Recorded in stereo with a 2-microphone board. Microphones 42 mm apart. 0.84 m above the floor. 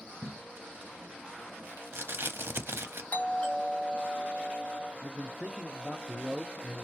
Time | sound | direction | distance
0.2 | tape being pulled | 65° right (ahead or behind) | 0.7 m
3.1 | a doorbell | 35° left (ahead or behind) | 1.5 m
5.0 | a man speaking | 5° right (ahead or behind) | 0.7 m